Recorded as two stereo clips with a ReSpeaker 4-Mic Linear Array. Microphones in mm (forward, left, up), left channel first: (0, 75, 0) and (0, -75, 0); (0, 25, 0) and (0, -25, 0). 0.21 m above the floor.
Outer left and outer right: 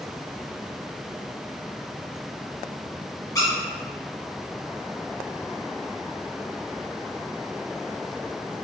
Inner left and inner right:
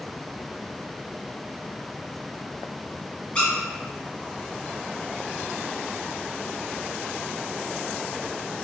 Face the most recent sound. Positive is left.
turn(degrees=25)  # may be behind; listen again after turning